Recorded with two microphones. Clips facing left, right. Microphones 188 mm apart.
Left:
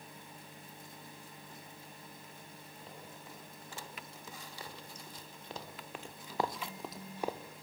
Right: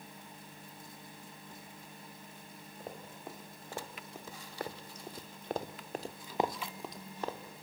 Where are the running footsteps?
55° right (ahead or behind), 3.5 m; by 7.6 s 20° left (ahead or behind), 1.7 m.